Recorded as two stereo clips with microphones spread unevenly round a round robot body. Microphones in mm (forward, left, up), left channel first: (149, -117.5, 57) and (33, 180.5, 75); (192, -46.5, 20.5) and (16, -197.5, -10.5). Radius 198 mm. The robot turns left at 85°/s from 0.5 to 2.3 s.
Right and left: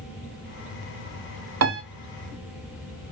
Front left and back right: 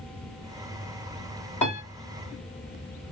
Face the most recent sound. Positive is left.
turn(degrees=45)